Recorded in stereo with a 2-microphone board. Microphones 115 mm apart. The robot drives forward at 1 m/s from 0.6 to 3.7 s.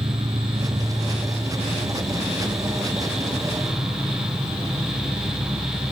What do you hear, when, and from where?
0.0 s an insect: 45° right (ahead or behind), 1.4 m; by 5.9 s 15° right (ahead or behind), 4 m